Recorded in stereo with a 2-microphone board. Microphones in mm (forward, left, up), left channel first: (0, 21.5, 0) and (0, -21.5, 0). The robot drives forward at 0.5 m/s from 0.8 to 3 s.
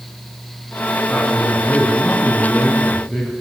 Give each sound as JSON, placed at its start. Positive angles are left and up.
{"t": 1.1, "sound": "a man speaking", "side_deg": 15, "distance_m": 5.0}